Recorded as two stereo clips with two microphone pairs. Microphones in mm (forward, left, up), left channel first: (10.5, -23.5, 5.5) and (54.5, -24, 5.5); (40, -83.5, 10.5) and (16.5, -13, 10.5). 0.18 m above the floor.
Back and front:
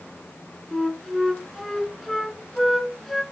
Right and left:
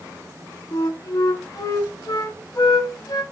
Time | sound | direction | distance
0.7 | a flute | 85° right | 0.5 m